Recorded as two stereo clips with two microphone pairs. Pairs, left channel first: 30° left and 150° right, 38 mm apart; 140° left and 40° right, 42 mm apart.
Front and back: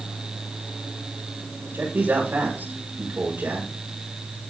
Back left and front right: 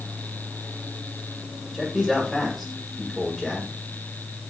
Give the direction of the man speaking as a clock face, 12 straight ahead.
5 o'clock.